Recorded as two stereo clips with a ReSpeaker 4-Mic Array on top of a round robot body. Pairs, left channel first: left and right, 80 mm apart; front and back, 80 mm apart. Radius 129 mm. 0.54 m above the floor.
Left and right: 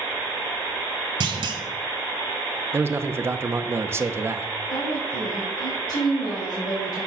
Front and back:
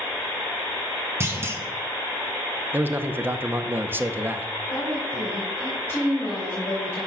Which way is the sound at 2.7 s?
130° right.